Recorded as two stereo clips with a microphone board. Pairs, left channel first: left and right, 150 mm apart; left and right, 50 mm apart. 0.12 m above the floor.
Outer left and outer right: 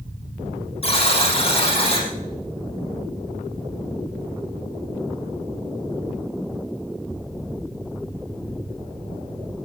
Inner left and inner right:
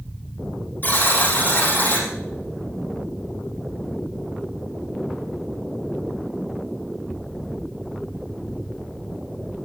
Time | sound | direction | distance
0.8 | a buzzer | 40° left (ahead or behind) | 5.5 m